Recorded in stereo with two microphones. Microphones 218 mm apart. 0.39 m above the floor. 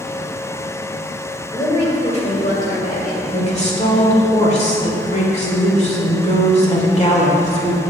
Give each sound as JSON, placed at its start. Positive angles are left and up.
{"t": 1.5, "sound": "a woman speaking", "side_deg": 20, "distance_m": 1.6}
{"t": 3.3, "sound": "a woman speaking", "side_deg": 35, "distance_m": 1.5}